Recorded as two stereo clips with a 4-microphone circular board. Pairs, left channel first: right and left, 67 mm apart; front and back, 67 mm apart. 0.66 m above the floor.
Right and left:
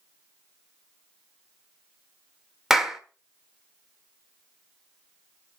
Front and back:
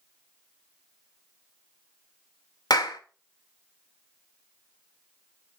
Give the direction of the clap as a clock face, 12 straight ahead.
12 o'clock.